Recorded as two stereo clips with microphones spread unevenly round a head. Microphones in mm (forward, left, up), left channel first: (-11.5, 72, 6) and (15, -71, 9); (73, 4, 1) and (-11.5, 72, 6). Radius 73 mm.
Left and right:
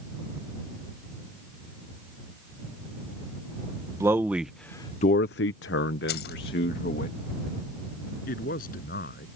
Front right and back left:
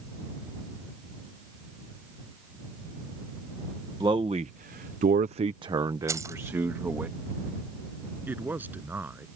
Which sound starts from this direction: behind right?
A man speaking, at 4.0 s.